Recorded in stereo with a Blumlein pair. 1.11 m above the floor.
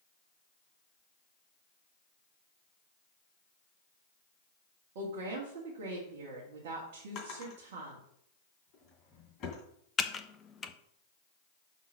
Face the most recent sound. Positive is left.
turn(degrees=15)